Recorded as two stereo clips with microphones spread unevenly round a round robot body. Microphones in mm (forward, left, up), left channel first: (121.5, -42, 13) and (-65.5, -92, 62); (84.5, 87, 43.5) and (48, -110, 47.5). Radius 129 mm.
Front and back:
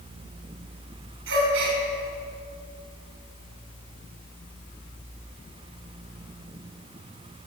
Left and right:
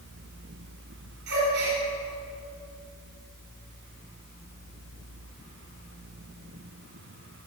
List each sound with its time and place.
1.3 s a gasp: 145° right, 5.5 m